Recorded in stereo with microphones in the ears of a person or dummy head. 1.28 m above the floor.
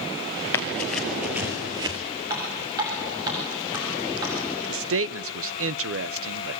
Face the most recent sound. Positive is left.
turn(degrees=-70)  # may be behind; listen again after turning